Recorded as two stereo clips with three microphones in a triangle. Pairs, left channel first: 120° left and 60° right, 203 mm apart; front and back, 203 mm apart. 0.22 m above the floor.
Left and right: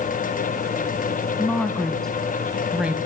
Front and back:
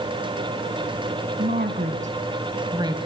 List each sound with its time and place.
1.4 s a woman speaking: 160° right, 2.0 m; by 3.0 s 135° right, 1.3 m